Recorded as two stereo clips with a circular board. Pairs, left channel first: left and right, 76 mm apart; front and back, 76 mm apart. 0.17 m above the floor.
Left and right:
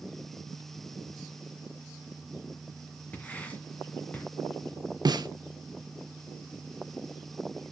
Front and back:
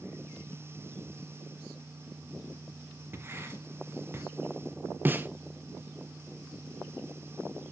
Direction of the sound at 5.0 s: 120° right.